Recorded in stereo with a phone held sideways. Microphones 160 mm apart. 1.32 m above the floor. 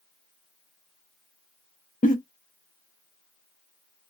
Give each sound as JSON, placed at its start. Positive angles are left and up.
{"t": 2.0, "sound": "a giggle", "side_deg": 60, "distance_m": 0.6}